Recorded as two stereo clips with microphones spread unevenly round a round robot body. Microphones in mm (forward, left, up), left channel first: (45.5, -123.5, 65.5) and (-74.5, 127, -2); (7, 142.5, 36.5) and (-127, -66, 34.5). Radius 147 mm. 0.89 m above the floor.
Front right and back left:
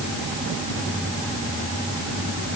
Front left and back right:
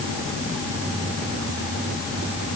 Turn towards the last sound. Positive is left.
No sound to turn to.